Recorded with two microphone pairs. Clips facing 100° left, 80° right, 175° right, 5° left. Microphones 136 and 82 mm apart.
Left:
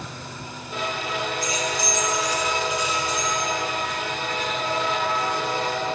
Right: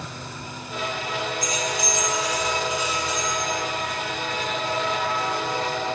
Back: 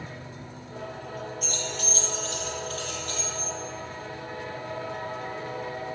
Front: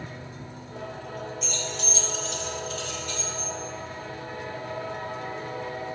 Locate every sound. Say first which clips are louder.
1.4 s keys jangling: even, even; 150° right, 1.5 m; by 3.5 s 140° right, 4.5 m